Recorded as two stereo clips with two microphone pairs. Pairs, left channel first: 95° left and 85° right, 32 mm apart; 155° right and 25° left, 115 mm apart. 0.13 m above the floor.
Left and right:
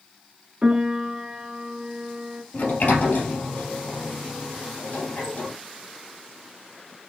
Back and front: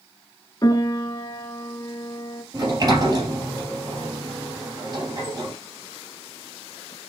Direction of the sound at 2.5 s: 80° left.